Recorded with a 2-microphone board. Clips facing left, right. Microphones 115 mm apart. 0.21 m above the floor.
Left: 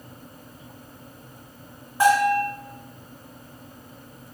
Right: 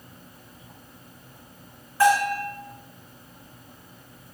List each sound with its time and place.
2.0 s a bell: 20° left (ahead or behind), 1.9 m